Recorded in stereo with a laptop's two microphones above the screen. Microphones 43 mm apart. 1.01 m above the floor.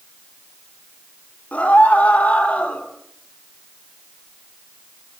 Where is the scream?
35° left (ahead or behind), 3.5 m; by 2.8 s 30° left (ahead or behind), 3 m.